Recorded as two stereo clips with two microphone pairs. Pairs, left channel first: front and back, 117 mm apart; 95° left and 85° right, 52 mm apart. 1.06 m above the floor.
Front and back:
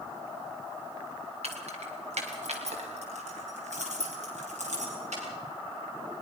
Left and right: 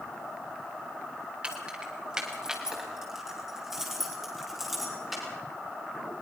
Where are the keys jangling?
155° right, 3 m; by 5.2 s 170° right, 6.5 m.